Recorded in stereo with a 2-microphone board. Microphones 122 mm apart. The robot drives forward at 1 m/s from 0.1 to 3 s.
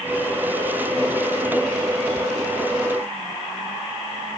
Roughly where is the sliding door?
I don't hear a sliding door.